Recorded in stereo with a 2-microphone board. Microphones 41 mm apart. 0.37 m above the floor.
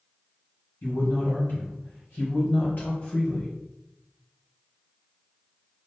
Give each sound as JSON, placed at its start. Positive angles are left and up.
{"t": 0.8, "sound": "a man speaking", "side_deg": 45, "distance_m": 2.0}